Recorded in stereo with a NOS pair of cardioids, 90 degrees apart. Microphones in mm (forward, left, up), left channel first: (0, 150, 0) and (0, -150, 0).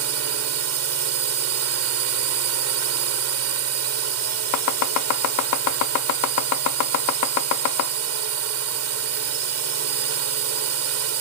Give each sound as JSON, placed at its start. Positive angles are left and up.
{"t": 0.0, "sound": "a drone", "azimuth_deg": -55}
{"t": 4.5, "sound": "chopping", "azimuth_deg": 70}